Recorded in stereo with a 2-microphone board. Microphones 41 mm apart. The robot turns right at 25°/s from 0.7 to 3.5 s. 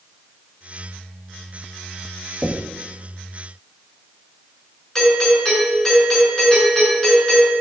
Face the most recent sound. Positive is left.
turn(degrees=15)  # may be behind; listen again after turning